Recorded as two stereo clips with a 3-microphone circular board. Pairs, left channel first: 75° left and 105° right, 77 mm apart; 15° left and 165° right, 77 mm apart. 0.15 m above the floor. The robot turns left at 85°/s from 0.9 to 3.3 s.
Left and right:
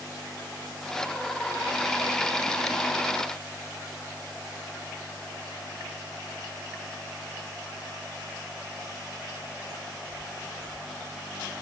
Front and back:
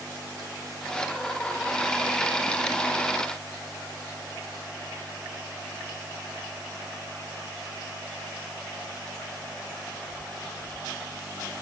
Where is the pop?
I don't hear a pop.